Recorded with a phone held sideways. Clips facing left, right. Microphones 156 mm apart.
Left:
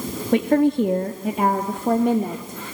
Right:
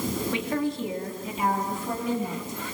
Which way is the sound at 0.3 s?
55° left (ahead or behind).